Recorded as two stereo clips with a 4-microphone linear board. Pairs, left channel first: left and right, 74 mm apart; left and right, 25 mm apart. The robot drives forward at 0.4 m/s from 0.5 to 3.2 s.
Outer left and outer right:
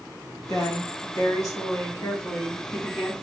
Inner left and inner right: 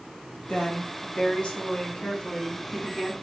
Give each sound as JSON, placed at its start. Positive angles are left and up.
{"t": 0.5, "sound": "a woman speaking", "side_deg": 50, "distance_m": 1.0}